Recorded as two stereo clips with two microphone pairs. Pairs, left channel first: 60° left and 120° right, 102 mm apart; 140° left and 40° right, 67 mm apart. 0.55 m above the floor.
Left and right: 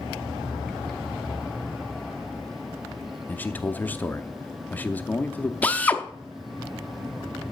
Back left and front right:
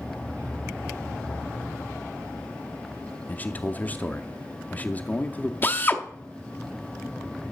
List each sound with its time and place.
3.3 s a man speaking: 115° left, 0.6 m
5.6 s a drill: 125° left, 0.7 m